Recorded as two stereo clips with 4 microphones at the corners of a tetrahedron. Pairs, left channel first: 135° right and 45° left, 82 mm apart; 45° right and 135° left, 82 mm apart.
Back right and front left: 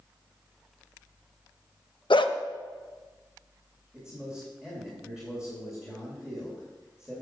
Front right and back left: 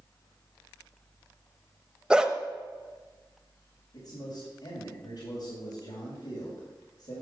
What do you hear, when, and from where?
2.1 s a dog barking: 145° right, 0.7 m
3.9 s a man speaking: 35° right, 3 m